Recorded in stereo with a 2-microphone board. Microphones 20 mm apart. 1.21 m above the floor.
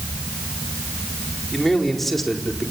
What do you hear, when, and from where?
1.5 s a man speaking: 10° left (ahead or behind), 4 m